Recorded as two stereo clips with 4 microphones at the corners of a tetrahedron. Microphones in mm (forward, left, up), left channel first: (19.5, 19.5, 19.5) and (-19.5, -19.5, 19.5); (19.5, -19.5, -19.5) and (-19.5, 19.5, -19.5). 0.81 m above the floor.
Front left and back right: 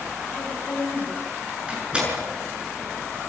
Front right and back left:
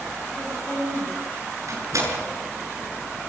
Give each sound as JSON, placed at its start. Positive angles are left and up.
{"t": 0.4, "sound": "a woman speaking", "azimuth_deg": 25, "distance_m": 6.5}
{"t": 1.7, "sound": "a door slam", "azimuth_deg": 150, "distance_m": 8.0}